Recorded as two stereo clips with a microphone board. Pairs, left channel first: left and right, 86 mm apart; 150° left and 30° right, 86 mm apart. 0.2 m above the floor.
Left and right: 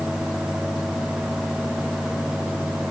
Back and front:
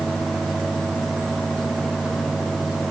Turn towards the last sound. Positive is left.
No sound to turn to.